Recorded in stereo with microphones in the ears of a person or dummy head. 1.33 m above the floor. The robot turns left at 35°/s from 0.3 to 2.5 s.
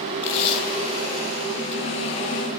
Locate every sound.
0.2 s tape being pulled: 40° left (ahead or behind), 1.8 m; by 2.6 s 35° right (ahead or behind), 1.8 m